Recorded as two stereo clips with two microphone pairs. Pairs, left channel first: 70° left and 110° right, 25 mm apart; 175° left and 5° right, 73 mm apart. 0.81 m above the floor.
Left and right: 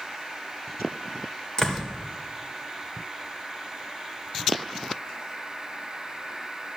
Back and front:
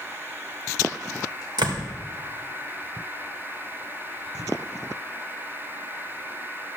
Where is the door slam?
5° right, 2.5 m.